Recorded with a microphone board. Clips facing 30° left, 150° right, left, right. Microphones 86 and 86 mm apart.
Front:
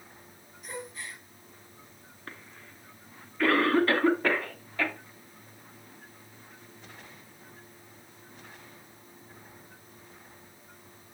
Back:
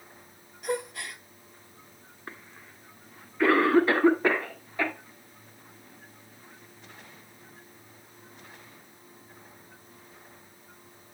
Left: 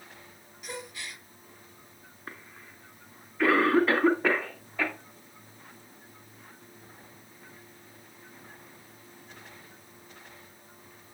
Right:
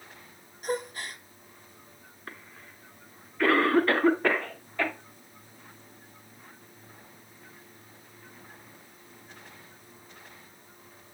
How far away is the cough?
About 1.8 m.